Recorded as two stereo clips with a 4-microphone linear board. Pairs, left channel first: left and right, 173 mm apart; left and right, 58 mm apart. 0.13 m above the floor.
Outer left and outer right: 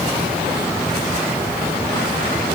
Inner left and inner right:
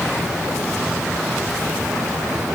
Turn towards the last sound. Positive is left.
No sound to turn to.